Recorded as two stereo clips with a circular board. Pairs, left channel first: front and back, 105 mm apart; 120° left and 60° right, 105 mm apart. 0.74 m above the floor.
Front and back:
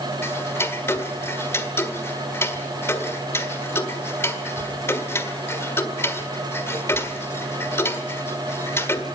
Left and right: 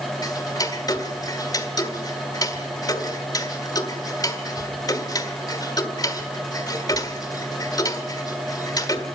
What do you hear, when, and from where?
0.2 s ticking: 65° left, 1.5 m